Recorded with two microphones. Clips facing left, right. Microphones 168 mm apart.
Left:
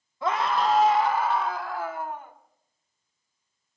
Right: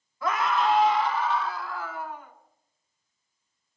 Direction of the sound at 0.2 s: 25° left (ahead or behind).